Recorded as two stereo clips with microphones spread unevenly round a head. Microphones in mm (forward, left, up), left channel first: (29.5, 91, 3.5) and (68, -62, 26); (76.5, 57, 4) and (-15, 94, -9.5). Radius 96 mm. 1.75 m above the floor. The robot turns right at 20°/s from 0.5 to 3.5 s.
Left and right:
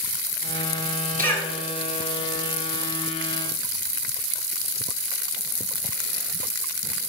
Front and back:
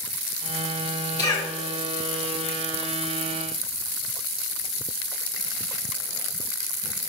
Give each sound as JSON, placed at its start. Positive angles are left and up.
{"t": 1.2, "sound": "a cough", "azimuth_deg": 50, "distance_m": 2.5}